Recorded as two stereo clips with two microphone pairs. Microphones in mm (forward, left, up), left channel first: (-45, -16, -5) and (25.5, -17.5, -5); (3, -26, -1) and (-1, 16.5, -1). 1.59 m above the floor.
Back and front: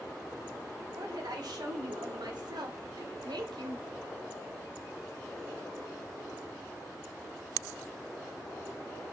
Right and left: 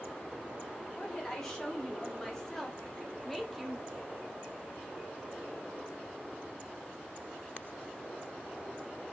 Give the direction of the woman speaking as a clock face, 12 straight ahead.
12 o'clock.